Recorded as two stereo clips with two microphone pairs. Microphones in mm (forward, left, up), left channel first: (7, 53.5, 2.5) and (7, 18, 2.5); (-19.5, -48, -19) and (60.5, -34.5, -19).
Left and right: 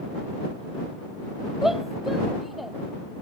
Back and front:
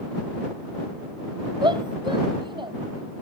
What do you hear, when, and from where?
1.6 s a shout: 10° right; by 2.7 s straight ahead